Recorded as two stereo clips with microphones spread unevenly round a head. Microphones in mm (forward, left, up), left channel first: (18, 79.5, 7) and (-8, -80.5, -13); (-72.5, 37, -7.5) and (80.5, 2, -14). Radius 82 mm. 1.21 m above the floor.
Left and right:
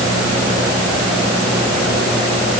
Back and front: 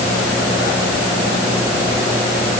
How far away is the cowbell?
No cowbell in this recording.